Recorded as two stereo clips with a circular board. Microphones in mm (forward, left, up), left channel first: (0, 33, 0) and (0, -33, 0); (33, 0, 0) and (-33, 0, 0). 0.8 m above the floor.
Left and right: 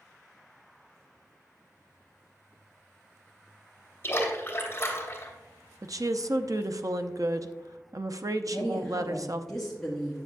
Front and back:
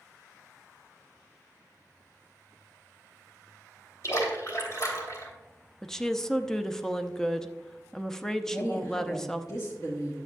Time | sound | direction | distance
4.0 | a splash | 35° left | 2.5 m
5.8 | a woman speaking | 80° right | 0.6 m
8.5 | a woman speaking | 5° left | 1.6 m